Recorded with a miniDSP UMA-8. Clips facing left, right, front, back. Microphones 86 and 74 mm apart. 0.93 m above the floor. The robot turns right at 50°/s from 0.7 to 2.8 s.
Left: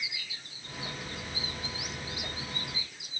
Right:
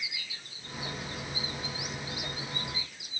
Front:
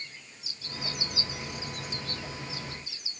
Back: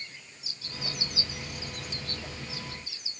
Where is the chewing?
No chewing in this recording.